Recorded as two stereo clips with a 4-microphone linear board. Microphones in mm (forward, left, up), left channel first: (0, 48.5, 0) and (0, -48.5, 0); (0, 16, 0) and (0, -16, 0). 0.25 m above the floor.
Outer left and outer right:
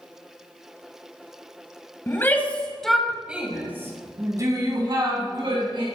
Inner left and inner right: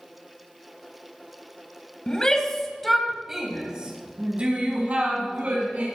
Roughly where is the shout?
Left.